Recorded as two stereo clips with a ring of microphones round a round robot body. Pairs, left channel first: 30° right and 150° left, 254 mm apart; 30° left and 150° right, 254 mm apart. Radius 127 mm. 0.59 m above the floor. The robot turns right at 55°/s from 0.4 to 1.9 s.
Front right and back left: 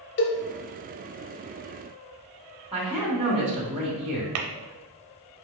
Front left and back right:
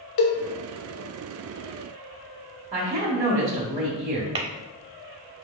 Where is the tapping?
140° left, 0.6 m.